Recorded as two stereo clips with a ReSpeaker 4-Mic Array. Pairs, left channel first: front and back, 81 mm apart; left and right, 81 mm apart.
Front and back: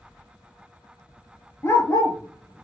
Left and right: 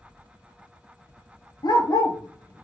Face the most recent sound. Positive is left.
turn(degrees=20)